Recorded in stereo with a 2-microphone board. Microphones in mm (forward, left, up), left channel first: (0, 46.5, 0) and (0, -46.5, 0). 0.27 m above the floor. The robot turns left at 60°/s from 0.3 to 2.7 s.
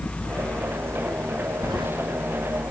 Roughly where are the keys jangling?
Right.